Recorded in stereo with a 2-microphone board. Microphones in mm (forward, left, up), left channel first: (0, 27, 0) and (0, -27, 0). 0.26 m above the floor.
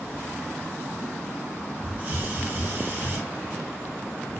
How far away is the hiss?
About 0.7 m.